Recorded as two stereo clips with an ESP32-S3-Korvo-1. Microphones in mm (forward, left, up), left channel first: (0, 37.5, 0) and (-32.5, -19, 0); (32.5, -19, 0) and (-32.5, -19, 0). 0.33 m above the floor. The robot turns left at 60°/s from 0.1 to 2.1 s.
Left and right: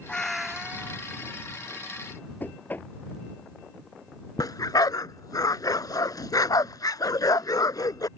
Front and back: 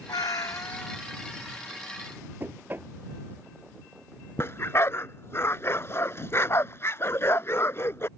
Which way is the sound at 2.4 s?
120° left.